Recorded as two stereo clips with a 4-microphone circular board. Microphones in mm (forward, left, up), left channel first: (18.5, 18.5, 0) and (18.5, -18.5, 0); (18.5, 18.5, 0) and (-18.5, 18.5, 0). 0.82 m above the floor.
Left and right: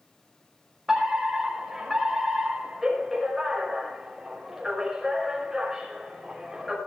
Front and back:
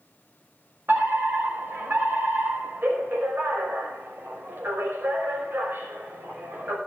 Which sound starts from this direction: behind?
A fire alarm, at 0.9 s.